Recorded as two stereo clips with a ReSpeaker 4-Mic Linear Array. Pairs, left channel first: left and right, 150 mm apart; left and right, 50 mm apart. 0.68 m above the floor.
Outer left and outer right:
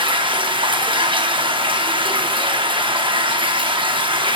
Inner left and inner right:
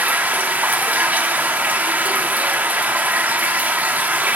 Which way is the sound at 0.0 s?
35° right (ahead or behind).